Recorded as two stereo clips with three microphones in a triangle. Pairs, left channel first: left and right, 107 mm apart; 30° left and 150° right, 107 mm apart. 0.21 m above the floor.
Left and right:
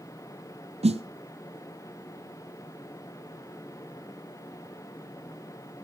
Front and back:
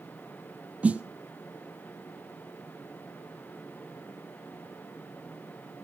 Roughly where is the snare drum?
Right.